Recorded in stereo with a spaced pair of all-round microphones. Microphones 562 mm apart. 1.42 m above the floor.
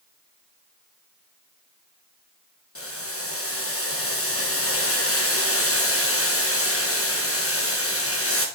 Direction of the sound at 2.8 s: 25° left (ahead or behind).